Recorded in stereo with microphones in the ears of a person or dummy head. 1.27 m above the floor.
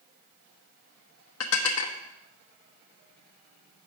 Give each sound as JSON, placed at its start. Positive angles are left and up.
{"t": 1.4, "sound": "dishes clattering", "side_deg": 75, "distance_m": 1.0}